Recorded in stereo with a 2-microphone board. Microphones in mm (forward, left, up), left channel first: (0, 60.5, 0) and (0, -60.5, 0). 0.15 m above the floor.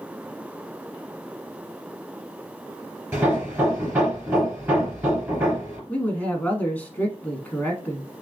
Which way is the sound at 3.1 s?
20° right (ahead or behind).